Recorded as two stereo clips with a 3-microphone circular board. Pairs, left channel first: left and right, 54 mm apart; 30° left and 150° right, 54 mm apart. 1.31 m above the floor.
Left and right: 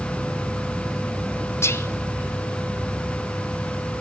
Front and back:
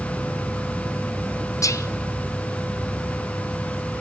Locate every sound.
1.6 s whispering: 50° left, 0.8 m